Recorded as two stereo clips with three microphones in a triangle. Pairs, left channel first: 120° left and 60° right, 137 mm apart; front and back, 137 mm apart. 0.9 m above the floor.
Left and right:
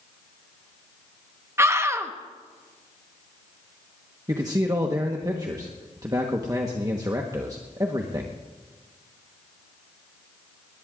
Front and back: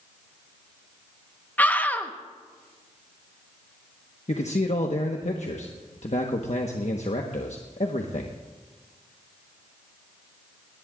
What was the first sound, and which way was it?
A scream, 50° right.